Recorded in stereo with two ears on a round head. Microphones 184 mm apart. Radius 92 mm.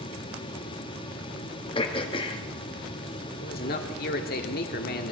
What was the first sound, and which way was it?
Throat clearing, 25° left (ahead or behind).